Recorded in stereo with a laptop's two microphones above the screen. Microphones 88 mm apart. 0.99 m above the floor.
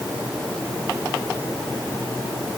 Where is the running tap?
I don't hear a running tap.